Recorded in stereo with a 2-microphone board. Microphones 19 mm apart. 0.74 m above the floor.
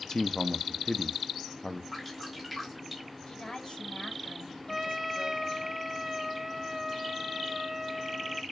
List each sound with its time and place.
0.1 s a man speaking: 35° left (ahead or behind), 0.7 m
1.9 s dripping: centre (ahead or behind), 5.5 m
3.3 s a woman speaking: 50° left (ahead or behind), 3 m
4.7 s a trumpet: 15° right (ahead or behind), 0.6 m